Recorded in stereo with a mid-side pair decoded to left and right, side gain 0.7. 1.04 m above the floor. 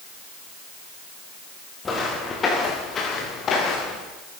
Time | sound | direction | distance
1.9 | footsteps | 20° left | 8.5 m